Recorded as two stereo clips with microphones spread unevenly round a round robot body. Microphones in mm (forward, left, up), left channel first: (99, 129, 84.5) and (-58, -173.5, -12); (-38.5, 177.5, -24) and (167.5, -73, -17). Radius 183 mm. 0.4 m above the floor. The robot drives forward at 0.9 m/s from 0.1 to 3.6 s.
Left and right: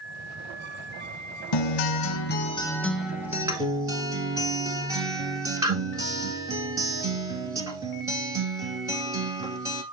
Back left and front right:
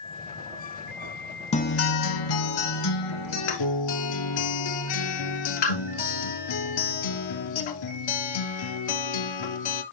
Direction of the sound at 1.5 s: 55° left.